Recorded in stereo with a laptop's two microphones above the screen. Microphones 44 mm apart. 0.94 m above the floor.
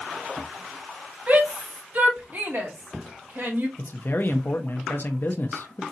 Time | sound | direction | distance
1.3 | a shout | 40° right (ahead or behind) | 2.5 m
3.8 | a man speaking | 55° left (ahead or behind) | 0.7 m